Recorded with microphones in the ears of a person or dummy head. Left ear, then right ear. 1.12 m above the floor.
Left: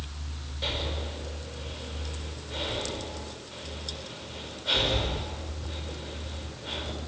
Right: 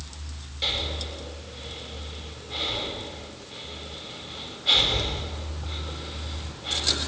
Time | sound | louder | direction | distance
0.6 | breathing | right 5 dB | 35° right (ahead or behind) | 7.5 m